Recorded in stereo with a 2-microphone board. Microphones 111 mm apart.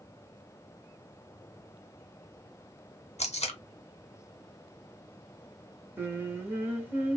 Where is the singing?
20° right (ahead or behind), 0.9 m.